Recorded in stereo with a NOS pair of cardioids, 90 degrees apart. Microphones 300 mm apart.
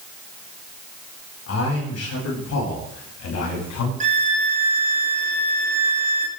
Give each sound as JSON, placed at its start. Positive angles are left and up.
{"t": 1.5, "sound": "a man speaking", "azimuth_deg": 55, "distance_m": 9.0}
{"t": 4.0, "sound": "a violin", "azimuth_deg": -25, "distance_m": 5.5}